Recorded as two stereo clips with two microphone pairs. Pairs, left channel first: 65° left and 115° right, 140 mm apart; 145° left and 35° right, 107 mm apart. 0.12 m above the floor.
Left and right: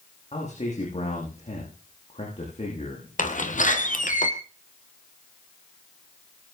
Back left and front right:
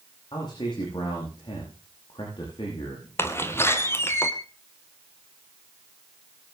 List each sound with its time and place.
0.3 s a man speaking: 100° left, 8.5 m
3.2 s a door slam: 80° left, 2.5 m